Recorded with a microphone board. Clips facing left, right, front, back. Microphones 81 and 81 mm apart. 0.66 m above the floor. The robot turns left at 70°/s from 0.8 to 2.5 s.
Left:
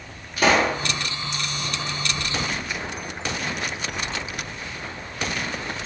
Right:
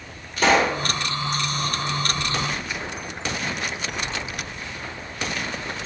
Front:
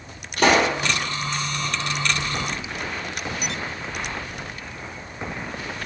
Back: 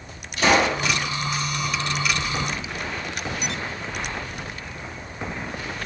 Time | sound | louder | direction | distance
0.4 | a pop | right 1 dB, front 1 dB | 10° left | 1.6 m